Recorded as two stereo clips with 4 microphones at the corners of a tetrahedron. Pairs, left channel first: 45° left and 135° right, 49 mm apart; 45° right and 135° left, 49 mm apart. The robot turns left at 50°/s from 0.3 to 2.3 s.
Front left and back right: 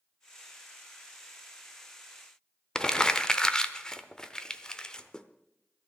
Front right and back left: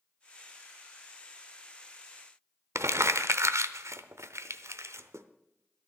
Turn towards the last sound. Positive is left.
turn(degrees=120)